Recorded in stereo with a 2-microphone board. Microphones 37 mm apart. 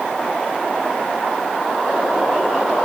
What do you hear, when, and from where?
Only background noise.